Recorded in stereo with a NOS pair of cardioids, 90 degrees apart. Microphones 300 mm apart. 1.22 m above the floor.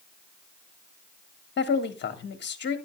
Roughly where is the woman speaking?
Ahead left.